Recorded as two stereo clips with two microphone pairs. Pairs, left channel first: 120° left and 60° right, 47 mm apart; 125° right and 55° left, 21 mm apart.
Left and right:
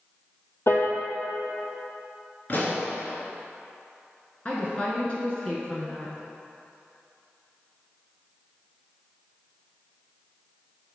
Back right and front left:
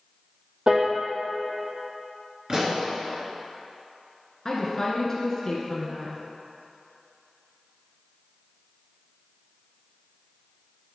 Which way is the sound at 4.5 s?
170° left.